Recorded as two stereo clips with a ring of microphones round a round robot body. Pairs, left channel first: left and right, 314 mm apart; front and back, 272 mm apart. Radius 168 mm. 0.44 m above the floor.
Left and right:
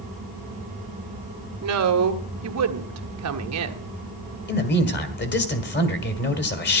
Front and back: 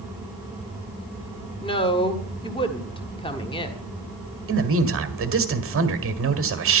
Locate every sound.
1.6 s a woman speaking: 70° right, 1.5 m
4.5 s a man speaking: 145° left, 2.0 m